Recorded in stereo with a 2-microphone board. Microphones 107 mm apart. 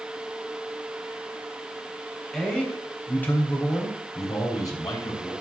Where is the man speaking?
5° left (ahead or behind), 3.5 m; by 5.3 s 45° left (ahead or behind), 3.5 m.